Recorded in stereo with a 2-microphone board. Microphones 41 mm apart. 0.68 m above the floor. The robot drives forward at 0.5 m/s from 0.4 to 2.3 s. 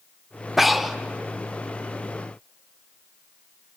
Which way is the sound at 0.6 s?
5° right (ahead or behind).